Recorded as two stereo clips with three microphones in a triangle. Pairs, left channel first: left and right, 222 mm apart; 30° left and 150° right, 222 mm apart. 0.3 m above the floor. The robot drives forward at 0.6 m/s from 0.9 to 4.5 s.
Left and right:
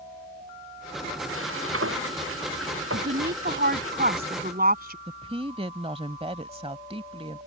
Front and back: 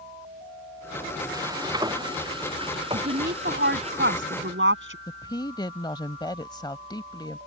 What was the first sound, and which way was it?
Frying, 75° right.